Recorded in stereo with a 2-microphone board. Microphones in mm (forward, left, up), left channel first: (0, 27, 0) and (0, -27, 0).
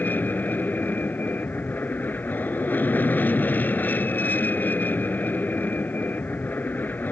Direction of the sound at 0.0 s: 35° left (ahead or behind).